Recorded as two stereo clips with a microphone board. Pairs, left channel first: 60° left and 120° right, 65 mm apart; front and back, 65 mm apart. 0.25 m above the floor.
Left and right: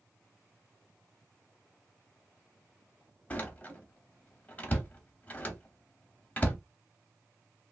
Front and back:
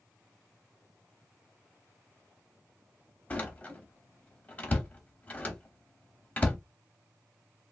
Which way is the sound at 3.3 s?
30° left.